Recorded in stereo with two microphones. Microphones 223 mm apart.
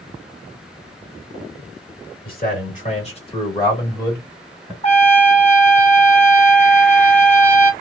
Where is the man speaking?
40° left (ahead or behind), 1.4 m; by 4.7 s centre (ahead or behind), 1.4 m.